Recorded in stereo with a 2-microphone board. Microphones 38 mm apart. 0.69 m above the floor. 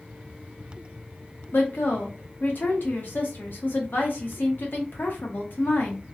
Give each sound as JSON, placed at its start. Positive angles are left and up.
{"t": 1.5, "sound": "a woman speaking", "side_deg": 60, "distance_m": 0.9}